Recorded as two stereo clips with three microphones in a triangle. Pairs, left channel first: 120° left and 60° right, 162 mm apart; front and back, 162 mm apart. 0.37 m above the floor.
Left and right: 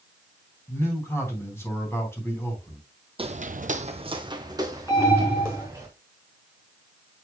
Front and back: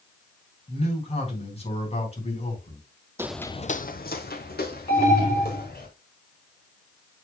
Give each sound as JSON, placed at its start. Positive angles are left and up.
{"t": 0.7, "sound": "a man speaking", "azimuth_deg": 45, "distance_m": 3.5}
{"t": 3.2, "sound": "footsteps", "azimuth_deg": -105, "distance_m": 0.7}
{"t": 4.9, "sound": "an alarm", "azimuth_deg": 50, "distance_m": 3.0}